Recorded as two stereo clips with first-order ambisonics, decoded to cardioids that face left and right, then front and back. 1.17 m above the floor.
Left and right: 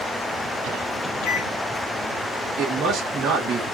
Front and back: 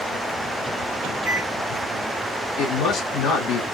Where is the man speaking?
35° right, 1.7 m.